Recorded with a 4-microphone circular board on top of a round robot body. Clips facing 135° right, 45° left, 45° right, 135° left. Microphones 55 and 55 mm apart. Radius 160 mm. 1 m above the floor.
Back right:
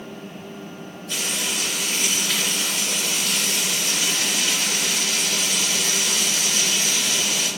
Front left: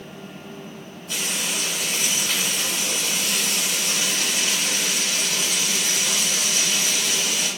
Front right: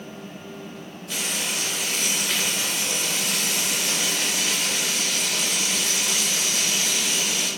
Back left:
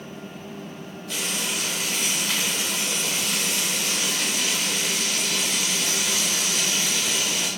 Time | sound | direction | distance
1.1 | frying | 20° left | 1.0 m